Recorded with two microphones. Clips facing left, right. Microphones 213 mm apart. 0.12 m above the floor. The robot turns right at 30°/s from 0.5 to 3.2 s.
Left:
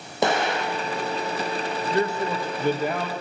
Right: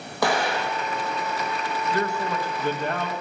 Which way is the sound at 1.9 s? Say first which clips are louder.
Left 3 dB; 140° left.